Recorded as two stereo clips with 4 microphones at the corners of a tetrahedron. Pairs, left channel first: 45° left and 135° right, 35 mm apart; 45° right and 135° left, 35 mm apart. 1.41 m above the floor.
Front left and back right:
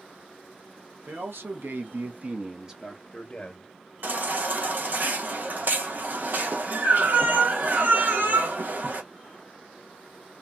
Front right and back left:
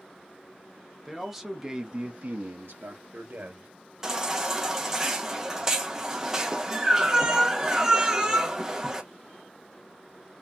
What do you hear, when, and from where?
1.1 s a man speaking: 135° right, 1.1 m; by 3.7 s 110° left, 1.1 m
4.0 s a baby crying: 150° right, 0.7 m